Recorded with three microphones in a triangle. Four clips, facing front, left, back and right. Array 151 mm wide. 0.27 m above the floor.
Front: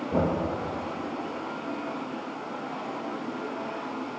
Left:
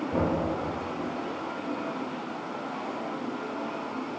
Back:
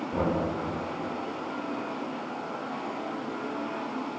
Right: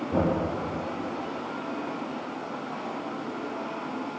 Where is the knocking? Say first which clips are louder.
Right 2 dB, front 2 dB; 35° right, 8 m.